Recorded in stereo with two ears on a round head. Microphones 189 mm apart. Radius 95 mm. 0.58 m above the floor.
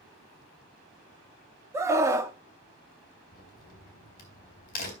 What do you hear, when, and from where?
1.7 s a scream: 15° right (ahead or behind), 0.7 m
3.3 s a crack: 45° left (ahead or behind), 3 m